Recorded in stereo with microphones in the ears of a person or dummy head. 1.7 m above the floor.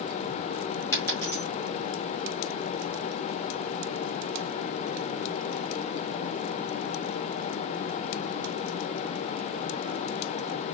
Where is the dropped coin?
15° left (ahead or behind), 2.5 m.